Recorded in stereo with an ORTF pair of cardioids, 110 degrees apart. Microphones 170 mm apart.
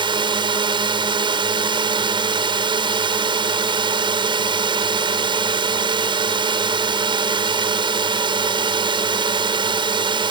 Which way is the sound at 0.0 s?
30° right.